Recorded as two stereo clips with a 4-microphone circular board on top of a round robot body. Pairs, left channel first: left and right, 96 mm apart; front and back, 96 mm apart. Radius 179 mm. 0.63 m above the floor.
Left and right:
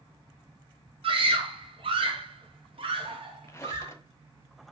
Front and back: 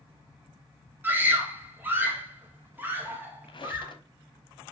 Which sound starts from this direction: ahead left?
A squeak, at 3.5 s.